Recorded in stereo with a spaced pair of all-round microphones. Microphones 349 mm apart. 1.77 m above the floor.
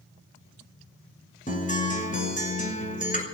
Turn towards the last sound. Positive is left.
turn(degrees=25)  # may be behind; listen again after turning